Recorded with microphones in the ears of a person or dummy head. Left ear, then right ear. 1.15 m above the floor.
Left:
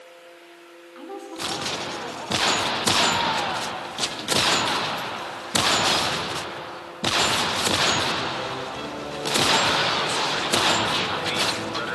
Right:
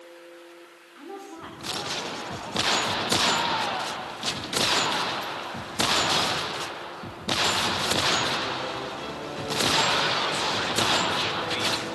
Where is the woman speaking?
15° left (ahead or behind), 4.5 m.